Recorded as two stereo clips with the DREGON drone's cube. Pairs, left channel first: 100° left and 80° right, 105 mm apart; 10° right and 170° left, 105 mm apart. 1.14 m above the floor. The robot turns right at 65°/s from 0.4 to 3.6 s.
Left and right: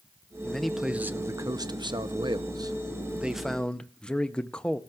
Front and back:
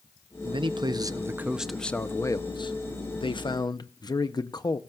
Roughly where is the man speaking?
Behind.